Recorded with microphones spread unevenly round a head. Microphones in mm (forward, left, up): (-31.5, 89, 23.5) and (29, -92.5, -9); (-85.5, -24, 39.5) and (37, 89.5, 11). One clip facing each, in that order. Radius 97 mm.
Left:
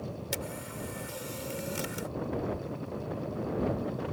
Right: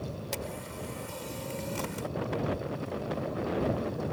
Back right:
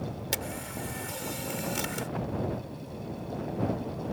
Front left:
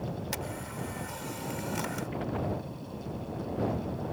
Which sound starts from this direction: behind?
A camera shutter, at 0.3 s.